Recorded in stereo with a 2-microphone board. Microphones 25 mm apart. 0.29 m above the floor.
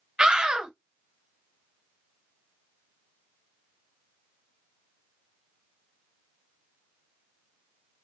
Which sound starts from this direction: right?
A scream, at 0.2 s.